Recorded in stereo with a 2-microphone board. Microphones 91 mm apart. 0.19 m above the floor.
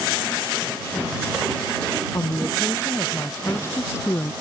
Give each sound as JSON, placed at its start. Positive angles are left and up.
{"t": 2.1, "sound": "a woman speaking", "side_deg": 30}